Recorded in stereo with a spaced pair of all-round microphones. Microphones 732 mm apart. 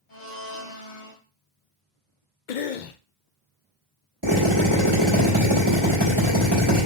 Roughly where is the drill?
Right.